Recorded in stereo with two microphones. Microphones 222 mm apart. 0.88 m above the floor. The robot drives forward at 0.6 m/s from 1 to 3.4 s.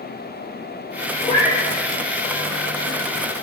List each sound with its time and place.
1.2 s a cat meowing: 35° left (ahead or behind), 2 m